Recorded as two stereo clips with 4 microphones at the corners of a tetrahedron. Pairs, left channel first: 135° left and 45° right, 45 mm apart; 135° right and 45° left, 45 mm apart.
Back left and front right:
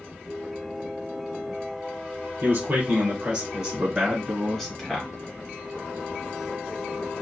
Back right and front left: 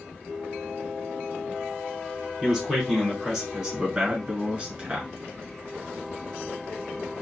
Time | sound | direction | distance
2.4 | a man speaking | 35° right | 1.5 m